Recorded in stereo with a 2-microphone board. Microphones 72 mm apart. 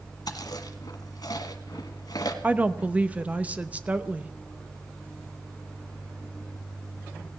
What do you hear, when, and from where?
0.3 s chewing: 70° left (ahead or behind), 1.5 m
2.4 s a woman speaking: 20° right (ahead or behind), 0.6 m